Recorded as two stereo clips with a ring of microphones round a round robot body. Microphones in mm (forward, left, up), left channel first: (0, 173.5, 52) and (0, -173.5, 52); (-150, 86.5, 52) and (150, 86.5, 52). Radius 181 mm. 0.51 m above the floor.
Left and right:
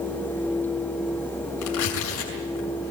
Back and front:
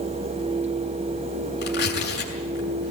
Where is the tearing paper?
125° left, 6.5 m.